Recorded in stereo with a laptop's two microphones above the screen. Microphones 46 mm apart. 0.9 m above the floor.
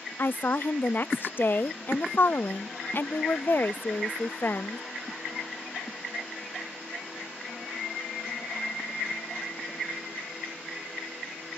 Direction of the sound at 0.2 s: 50° left (ahead or behind).